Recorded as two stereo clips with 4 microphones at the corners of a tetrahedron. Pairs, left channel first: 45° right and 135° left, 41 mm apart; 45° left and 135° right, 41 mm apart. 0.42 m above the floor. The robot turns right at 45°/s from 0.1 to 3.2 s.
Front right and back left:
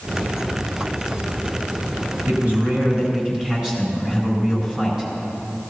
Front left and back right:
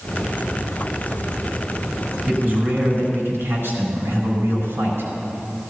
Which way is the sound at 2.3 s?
160° left.